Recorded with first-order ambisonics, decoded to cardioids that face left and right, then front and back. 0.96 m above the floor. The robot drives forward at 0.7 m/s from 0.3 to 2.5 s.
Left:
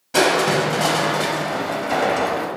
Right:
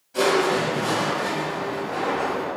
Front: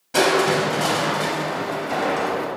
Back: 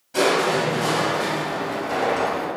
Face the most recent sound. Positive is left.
turn(degrees=95)